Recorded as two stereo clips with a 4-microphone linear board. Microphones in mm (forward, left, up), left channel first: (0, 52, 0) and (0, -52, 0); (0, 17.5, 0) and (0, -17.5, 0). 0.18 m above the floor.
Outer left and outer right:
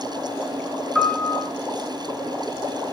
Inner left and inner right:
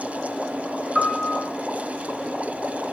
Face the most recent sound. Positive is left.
turn(degrees=0)  # may be behind; listen again after turning